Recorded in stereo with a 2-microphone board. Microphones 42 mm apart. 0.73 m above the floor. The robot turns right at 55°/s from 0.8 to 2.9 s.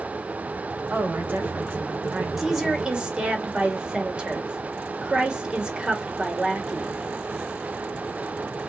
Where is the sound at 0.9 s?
105° right, 1.8 m; by 2.3 s 30° right, 1.8 m.